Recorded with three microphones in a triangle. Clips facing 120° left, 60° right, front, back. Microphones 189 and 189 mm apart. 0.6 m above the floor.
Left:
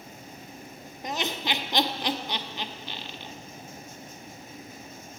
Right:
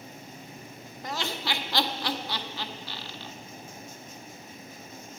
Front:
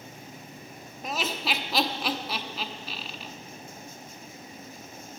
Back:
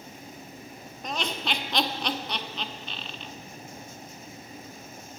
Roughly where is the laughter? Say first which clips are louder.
Left 2 dB, even; left.